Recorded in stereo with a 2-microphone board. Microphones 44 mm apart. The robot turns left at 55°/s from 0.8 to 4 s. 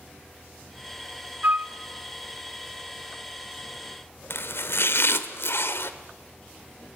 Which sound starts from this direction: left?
Chopping, at 4.3 s.